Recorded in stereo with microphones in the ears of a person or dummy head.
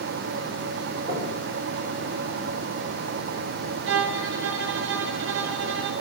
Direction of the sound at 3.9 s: 75° right (ahead or behind).